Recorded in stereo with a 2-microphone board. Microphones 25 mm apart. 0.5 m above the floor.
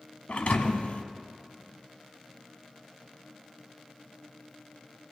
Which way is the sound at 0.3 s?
65° left (ahead or behind).